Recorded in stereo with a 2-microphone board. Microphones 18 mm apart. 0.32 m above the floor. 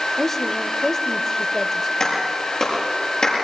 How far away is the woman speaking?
About 0.9 m.